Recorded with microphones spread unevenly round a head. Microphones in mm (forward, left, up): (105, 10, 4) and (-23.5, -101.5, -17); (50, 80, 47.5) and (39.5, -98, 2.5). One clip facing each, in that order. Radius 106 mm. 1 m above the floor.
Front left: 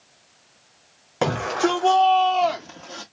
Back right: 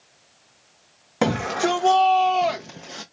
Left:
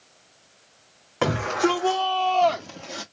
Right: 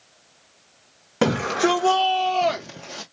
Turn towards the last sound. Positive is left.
turn(degrees=-170)